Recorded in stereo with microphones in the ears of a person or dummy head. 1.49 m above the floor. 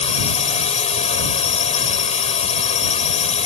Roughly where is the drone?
Left.